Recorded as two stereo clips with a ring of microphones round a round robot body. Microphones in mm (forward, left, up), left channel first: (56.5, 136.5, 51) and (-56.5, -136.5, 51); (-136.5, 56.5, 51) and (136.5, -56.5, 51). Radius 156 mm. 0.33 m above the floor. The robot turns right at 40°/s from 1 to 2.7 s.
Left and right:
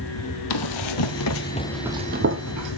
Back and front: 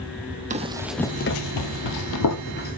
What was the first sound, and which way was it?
Running footsteps, 45° left.